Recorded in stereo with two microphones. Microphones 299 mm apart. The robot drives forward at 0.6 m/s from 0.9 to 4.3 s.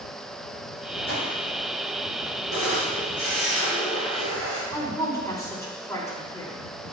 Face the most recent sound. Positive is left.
turn(degrees=10)  # may be behind; listen again after turning